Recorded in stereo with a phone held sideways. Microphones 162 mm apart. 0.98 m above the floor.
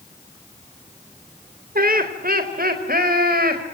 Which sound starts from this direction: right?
Laughter, at 1.8 s.